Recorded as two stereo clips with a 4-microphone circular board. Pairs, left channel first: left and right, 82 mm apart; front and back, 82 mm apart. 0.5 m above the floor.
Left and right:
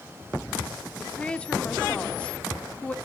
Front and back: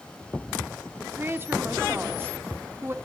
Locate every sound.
1.0 s a woman speaking: 155° left, 0.7 m